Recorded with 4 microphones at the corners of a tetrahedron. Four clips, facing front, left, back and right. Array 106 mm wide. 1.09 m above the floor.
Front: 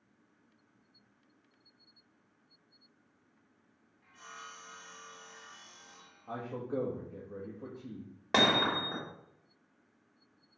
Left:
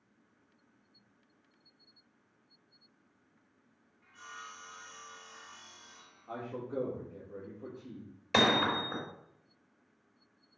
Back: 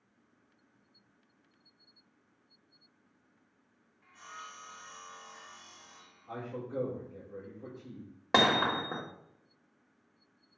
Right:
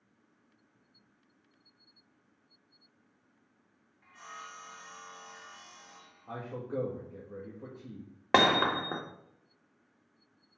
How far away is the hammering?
About 1.7 m.